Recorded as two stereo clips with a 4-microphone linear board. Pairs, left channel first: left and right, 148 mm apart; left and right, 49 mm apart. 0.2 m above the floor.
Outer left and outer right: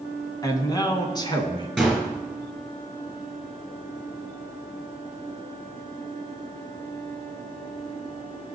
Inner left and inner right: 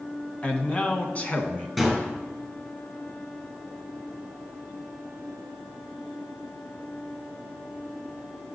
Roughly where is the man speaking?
Left.